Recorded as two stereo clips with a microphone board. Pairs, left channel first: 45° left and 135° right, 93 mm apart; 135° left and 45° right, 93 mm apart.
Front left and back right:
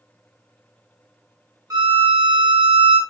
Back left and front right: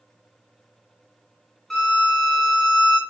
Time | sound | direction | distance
1.7 | a violin | 150° right | 1.6 m